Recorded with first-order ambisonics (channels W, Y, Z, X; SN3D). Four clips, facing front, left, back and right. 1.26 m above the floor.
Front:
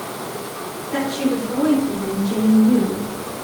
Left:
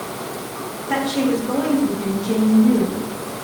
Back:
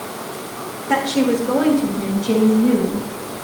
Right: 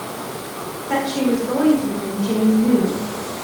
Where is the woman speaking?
175° right, 5.5 m; by 3.5 s 160° right, 7.5 m.